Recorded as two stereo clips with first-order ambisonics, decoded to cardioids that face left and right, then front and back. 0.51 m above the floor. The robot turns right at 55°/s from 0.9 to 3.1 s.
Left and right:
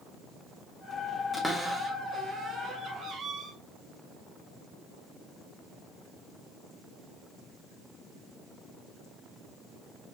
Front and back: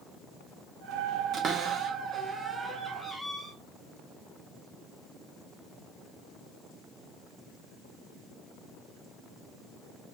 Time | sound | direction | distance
1.3 | a cupboard door | 175° left | 0.8 m